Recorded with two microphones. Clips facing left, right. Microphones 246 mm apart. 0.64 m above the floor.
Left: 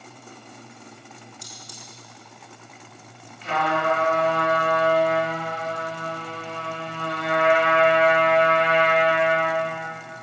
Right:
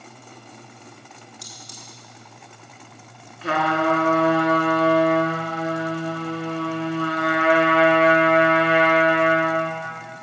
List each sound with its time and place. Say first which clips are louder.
1.4 s cutlery clinking: right 1 dB; 85° right, 4 m
3.4 s a trumpet: right 3 dB; 85° right, 2.5 m